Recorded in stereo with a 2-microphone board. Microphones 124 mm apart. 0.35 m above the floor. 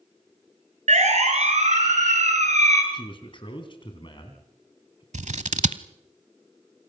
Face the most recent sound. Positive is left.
turn(degrees=-70)  # may be behind; listen again after turning